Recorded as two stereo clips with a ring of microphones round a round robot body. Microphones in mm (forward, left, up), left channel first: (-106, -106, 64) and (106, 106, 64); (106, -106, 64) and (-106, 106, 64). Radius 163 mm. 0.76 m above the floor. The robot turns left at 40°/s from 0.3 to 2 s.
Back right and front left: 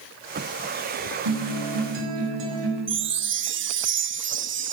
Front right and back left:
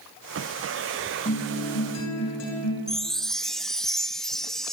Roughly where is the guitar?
Ahead left.